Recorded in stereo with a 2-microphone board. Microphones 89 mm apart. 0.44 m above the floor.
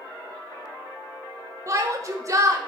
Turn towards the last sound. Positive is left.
turn(degrees=-40)  # may be behind; listen again after turning